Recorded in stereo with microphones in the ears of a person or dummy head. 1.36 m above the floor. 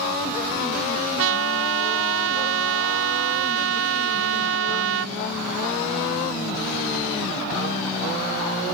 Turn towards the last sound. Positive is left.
turn(degrees=-80)